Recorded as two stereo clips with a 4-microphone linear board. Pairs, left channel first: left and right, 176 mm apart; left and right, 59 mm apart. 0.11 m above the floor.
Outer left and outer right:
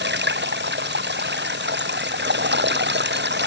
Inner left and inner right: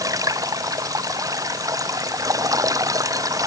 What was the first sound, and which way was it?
Running water, 80° right.